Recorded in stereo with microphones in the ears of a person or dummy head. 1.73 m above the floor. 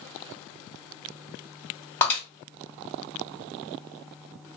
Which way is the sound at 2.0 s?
10° left (ahead or behind).